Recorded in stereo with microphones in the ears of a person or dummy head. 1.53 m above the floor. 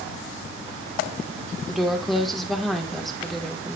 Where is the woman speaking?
5° left (ahead or behind), 2 m.